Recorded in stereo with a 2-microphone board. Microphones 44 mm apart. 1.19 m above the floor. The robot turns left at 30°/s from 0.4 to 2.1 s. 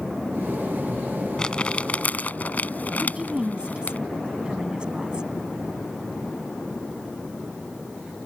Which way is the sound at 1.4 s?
15° left (ahead or behind).